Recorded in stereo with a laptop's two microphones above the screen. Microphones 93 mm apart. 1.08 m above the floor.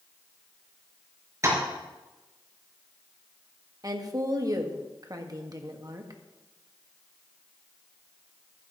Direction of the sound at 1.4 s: 35° right (ahead or behind).